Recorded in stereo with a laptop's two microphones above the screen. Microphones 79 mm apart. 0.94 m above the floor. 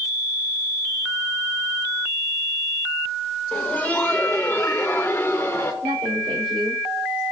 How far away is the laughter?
About 1.3 m.